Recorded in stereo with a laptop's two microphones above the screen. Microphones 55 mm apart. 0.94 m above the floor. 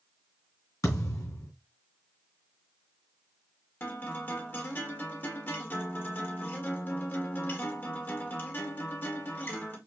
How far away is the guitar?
About 1.8 m.